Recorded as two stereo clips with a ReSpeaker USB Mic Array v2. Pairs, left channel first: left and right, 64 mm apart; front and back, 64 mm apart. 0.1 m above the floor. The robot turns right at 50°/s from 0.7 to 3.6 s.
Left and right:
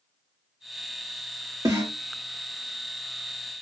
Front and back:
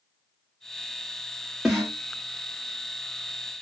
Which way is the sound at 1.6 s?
100° right.